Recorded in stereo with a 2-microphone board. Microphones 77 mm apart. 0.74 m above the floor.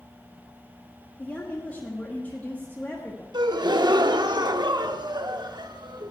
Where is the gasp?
65° right (ahead or behind), 0.7 m.